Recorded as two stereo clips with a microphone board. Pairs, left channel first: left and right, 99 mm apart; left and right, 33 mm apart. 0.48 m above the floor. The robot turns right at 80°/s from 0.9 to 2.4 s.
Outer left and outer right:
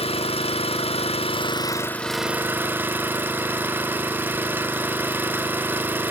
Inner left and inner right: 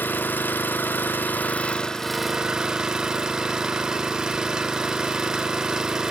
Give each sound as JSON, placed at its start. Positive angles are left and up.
{"t": 0.0, "sound": "an engine running", "azimuth_deg": 80, "distance_m": 0.7}